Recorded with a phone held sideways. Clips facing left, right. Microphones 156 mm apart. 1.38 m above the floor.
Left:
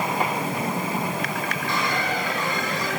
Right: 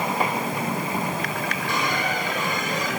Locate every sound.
1.7 s a squeak: 15° right (ahead or behind), 3 m